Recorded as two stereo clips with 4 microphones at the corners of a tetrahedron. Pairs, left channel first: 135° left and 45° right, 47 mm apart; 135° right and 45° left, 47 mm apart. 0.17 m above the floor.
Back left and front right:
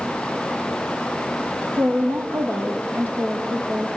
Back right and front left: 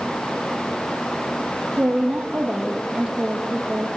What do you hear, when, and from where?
1.8 s a woman speaking: 25° right, 5 m; by 3.9 s 40° right, 7.5 m